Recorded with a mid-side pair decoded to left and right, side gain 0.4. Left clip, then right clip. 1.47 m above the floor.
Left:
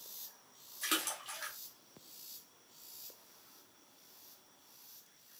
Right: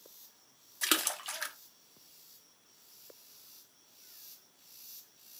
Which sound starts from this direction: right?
A splash, at 0.8 s.